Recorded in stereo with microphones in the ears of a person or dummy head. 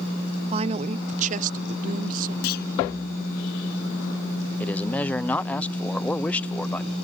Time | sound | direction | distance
0.5 | a man speaking | 30° right (ahead or behind) | ?
2.4 | a clunk | 55° left (ahead or behind) | ?
4.6 | a man speaking | 10° left (ahead or behind) | ?